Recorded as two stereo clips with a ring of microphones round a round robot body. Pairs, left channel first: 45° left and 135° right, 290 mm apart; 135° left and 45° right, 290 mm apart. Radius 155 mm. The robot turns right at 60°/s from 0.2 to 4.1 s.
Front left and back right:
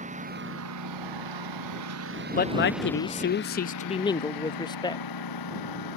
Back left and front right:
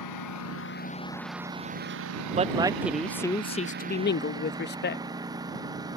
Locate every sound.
0.0 s a lawn mower: 160° left; by 6.0 s 35° left
2.4 s a man speaking: 5° left; by 5.0 s 110° left